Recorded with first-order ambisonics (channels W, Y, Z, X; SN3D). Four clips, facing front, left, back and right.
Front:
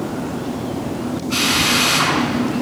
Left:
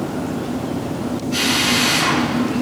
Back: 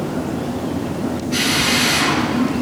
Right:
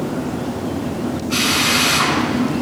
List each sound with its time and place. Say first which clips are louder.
1.3 s a drill: right 1 dB, front 1 dB; 50° right, 4.5 m